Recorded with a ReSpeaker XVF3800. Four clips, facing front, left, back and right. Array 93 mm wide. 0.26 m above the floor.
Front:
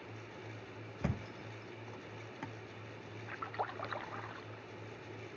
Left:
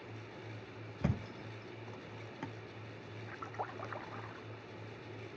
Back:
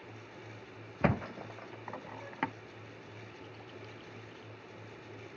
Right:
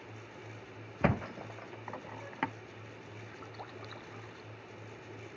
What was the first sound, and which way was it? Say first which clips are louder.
A thud: right 8 dB, back 10 dB; 135° right.